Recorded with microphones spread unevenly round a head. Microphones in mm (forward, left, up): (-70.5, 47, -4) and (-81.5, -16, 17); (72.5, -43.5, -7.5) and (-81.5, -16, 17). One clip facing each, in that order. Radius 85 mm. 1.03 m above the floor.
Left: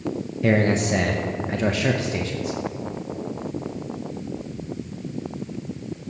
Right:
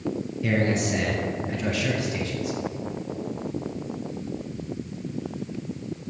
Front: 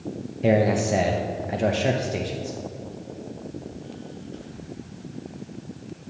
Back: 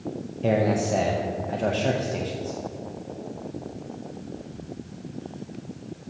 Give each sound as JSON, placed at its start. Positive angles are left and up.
{"t": 0.4, "sound": "a man speaking", "azimuth_deg": 60, "distance_m": 0.6}